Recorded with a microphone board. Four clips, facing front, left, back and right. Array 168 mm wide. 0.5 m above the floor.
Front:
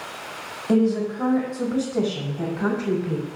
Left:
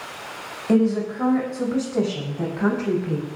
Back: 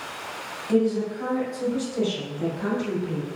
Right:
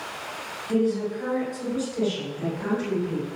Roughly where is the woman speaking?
Ahead left.